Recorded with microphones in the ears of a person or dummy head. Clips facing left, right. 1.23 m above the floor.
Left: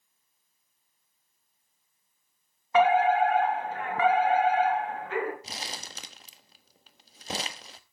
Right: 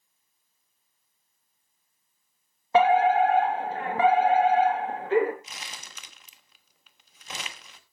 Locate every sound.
2.7 s a fire alarm: 30° right (ahead or behind), 3 m
5.4 s crumpling: 35° left (ahead or behind), 1.2 m